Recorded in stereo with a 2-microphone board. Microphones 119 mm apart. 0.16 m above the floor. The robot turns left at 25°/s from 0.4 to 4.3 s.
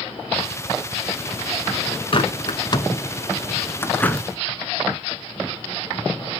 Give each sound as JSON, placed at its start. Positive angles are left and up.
{"t": 2.1, "sound": "a bird", "side_deg": 50, "distance_m": 0.7}